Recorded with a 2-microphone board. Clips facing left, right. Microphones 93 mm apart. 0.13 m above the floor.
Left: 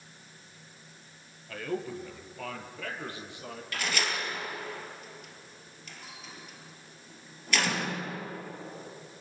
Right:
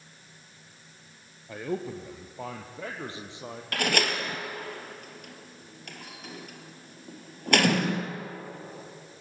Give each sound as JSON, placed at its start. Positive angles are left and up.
{"t": 1.5, "sound": "a man speaking", "side_deg": -20, "distance_m": 2.5}
{"t": 3.7, "sound": "a door slam", "side_deg": -55, "distance_m": 2.0}